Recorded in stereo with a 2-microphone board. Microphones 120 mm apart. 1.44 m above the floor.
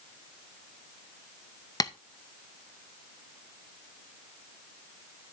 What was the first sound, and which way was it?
Tapping, 30° left (ahead or behind).